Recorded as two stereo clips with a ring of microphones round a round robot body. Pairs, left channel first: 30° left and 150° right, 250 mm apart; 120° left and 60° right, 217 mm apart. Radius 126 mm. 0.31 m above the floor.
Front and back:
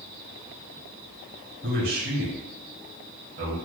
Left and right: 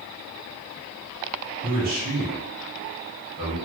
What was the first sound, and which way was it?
A man speaking, 105° right.